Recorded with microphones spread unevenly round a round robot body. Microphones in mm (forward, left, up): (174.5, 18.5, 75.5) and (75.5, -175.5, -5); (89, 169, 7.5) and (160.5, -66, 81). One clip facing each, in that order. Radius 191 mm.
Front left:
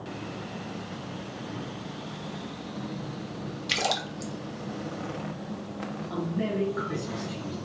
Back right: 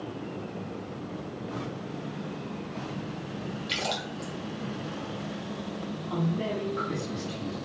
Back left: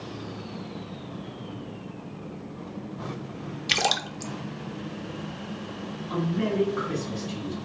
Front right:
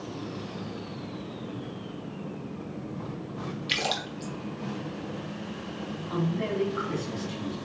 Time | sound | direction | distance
3.7 | a splash | 75° left | 1.0 m
6.1 | a man speaking | 150° left | 3 m